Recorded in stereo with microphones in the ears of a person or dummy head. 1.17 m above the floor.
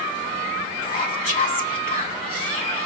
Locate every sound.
0.8 s whispering: 35° left (ahead or behind), 1.0 m